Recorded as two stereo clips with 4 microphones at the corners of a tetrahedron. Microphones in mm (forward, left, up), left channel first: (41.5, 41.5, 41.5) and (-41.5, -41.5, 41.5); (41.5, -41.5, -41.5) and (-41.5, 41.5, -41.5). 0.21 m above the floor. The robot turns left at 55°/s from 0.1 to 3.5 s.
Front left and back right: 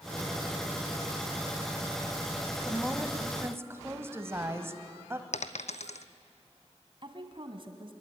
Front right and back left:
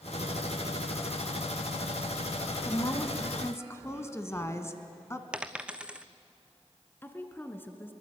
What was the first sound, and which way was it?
A woman speaking, 40° right.